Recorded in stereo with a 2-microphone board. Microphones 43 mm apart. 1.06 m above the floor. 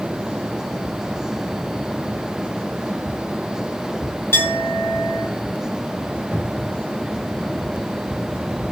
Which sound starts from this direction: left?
A clink, at 4.3 s.